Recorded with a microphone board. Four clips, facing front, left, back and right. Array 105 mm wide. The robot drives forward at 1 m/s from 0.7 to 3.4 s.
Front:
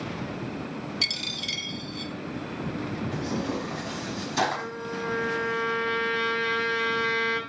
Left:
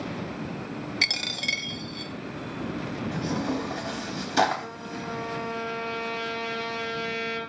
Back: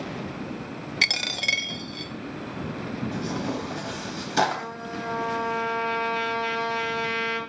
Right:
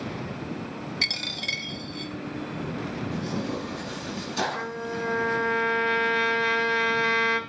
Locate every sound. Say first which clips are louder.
1.0 s a dropped coin: left 2 dB, back 6 dB; 165° left, 0.6 m; by 2.1 s 175° left, 1.7 m
3.1 s tearing paper: left 3 dB, even; 130° left, 4 m; by 4.7 s 135° left, 4 m
4.5 s a trumpet: right 5 dB, front 1 dB; 100° right, 2 m